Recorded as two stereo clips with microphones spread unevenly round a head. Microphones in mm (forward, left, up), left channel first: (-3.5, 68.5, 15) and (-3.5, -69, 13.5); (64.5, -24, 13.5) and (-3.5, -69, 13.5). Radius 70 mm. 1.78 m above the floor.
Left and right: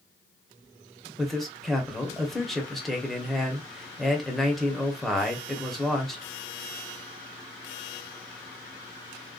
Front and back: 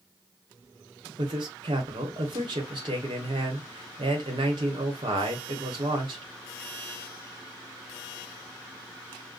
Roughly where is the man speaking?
Behind.